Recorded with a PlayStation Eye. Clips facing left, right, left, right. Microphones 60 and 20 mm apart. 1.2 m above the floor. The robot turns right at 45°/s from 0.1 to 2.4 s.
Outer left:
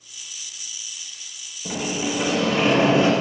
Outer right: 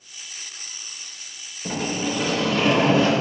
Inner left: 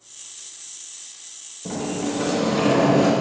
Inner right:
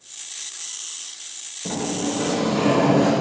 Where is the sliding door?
10° right, 0.8 m; by 3.1 s 20° left, 0.8 m.